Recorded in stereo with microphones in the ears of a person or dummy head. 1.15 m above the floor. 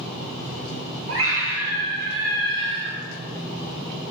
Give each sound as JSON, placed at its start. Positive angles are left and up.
{"t": 1.1, "sound": "a scream", "side_deg": -90, "distance_m": 2.0}